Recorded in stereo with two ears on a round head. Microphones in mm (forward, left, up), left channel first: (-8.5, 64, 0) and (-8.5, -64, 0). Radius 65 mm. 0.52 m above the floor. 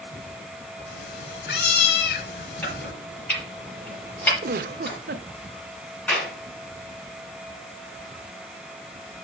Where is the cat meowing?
80° left, 1.5 m.